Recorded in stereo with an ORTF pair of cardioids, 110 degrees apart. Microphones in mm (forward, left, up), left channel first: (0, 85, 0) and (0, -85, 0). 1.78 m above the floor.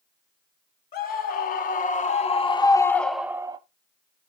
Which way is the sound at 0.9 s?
60° left.